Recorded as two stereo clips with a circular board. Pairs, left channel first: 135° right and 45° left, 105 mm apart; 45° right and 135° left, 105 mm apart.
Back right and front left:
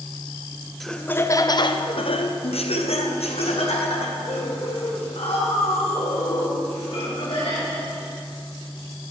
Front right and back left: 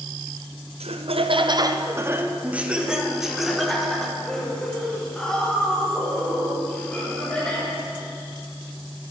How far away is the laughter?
About 0.5 m.